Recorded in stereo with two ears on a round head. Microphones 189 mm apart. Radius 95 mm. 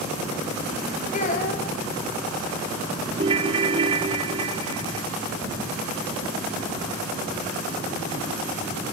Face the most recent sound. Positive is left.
turn(degrees=-25)  # may be behind; listen again after turning